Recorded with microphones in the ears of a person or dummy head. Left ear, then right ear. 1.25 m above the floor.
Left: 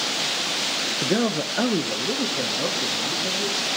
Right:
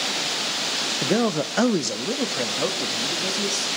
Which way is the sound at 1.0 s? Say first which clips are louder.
Right 1 dB; 10° right (ahead or behind).